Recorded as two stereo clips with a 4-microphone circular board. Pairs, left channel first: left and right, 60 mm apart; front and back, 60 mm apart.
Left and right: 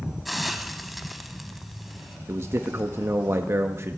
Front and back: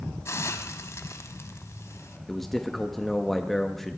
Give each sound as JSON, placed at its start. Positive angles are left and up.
{"t": 0.2, "sound": "a hiss", "azimuth_deg": 0, "distance_m": 0.9}
{"t": 2.3, "sound": "a man speaking", "azimuth_deg": -85, "distance_m": 0.7}